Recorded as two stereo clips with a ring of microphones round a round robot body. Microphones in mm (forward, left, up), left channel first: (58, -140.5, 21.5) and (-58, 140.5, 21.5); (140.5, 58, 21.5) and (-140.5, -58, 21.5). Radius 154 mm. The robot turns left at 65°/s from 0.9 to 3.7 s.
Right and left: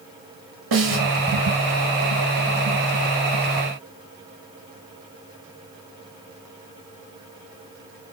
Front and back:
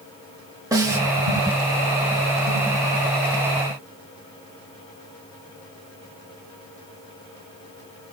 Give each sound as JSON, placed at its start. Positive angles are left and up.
{"t": 0.7, "sound": "a snare drum", "azimuth_deg": 125, "distance_m": 1.9}